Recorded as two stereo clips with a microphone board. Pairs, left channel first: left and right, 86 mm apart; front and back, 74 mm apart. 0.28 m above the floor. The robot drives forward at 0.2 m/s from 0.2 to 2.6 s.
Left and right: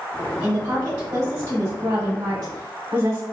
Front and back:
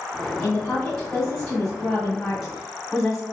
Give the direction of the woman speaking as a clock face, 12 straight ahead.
2 o'clock.